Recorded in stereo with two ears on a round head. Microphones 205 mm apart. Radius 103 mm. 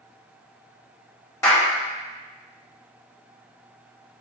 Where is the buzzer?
No buzzer in this recording.